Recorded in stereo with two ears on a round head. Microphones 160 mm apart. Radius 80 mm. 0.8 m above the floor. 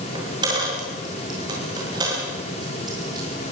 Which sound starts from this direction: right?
A dropped coin, at 0.1 s.